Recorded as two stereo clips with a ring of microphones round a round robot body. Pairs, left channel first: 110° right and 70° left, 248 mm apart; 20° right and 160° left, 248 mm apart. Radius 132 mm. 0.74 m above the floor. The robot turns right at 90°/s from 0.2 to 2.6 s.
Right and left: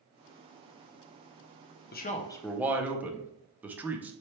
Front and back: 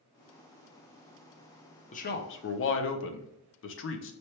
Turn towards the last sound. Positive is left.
turn(degrees=-15)